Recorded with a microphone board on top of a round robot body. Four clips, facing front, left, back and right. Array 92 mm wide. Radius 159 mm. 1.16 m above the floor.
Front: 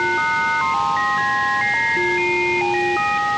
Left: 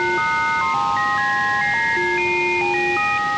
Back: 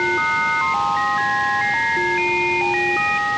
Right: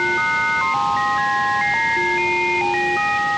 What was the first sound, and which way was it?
Only background noise.